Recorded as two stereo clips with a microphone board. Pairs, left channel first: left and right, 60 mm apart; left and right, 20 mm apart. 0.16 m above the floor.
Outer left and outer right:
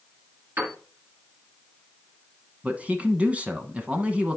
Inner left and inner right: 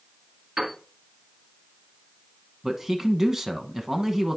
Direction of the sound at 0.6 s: 35° right (ahead or behind).